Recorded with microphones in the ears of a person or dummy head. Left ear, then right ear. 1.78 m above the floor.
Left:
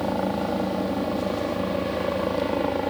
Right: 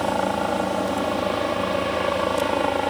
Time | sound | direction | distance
0.0 | a helicopter | 45° right (ahead or behind) | ?